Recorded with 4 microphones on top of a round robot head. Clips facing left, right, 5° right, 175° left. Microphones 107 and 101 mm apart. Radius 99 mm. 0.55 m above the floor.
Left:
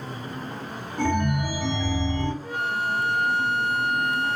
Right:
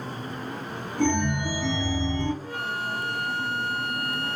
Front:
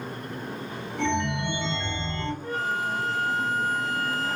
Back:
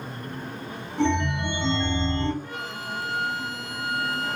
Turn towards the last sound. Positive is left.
turn(degrees=30)